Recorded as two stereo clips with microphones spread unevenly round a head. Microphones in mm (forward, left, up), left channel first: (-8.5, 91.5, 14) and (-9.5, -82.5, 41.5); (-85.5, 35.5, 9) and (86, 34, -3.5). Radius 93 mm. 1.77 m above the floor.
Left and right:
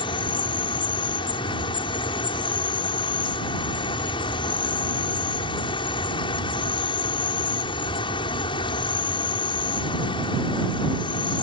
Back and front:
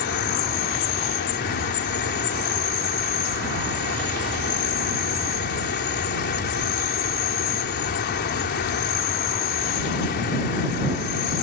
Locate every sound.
0.0 s an insect: 155° left